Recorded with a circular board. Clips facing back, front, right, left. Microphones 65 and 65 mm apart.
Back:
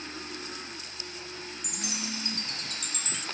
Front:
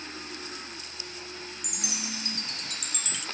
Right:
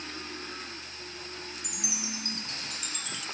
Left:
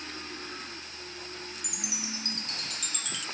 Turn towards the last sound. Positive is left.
turn(degrees=-145)